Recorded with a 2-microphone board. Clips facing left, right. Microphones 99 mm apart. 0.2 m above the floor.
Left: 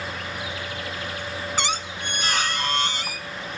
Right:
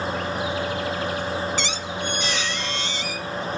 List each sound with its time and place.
1.6 s a squeak: 50° left (ahead or behind), 0.7 m